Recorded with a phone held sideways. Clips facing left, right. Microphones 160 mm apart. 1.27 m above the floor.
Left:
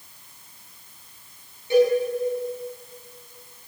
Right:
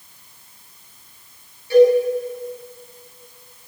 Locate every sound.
1.7 s a cowbell: 20° left (ahead or behind), 9.5 m